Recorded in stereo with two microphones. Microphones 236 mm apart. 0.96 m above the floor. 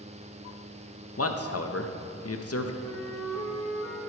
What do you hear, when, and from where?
1.2 s a man speaking: 70° left (ahead or behind), 0.6 m
2.8 s a flute: 10° left (ahead or behind), 1.5 m